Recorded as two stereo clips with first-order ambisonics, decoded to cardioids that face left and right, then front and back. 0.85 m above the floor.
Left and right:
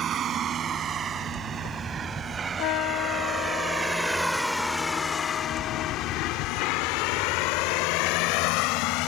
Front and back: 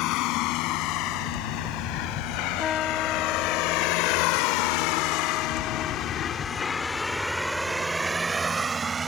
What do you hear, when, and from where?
0.0 s a vehicle: 30° right; by 9.1 s 110° left
2.6 s a trumpet: 60° left